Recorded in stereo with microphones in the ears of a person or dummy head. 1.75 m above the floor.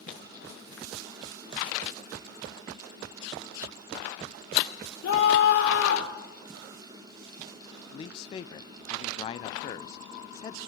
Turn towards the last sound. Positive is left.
turn(degrees=30)  # may be behind; listen again after turning